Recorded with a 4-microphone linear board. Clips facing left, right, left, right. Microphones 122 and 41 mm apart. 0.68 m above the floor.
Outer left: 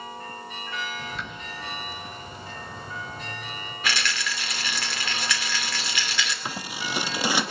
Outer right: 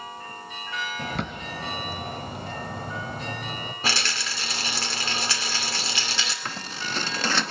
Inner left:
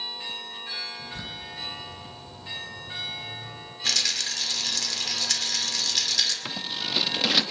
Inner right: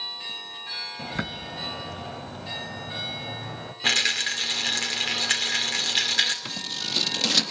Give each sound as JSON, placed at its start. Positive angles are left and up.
{"t": 1.0, "sound": "a bird", "side_deg": -60, "distance_m": 1.1}
{"t": 3.8, "sound": "a rattle", "side_deg": -35, "distance_m": 2.5}
{"t": 6.5, "sound": "scissors", "side_deg": 10, "distance_m": 0.7}